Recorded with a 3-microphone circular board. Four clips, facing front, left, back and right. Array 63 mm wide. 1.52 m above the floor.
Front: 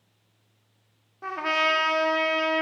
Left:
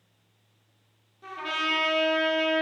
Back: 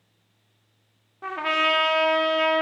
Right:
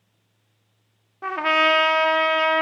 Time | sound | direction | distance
1.2 | a trumpet | 100° right | 0.6 m